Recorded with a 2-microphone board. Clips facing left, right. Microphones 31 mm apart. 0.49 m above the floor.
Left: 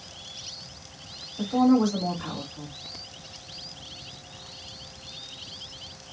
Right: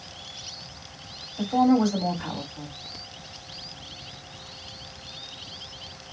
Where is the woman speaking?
75° right (ahead or behind), 3 m.